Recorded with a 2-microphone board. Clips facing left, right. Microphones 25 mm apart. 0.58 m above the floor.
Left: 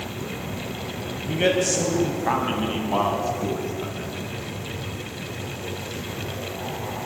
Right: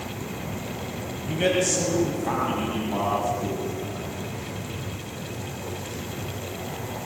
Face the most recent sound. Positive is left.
turn(degrees=55)  # may be behind; listen again after turning